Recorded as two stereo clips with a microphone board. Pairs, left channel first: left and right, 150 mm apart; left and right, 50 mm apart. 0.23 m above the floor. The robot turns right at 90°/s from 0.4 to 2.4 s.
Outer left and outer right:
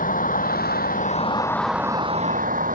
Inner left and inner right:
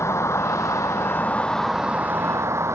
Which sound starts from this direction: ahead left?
A vehicle, at 0.0 s.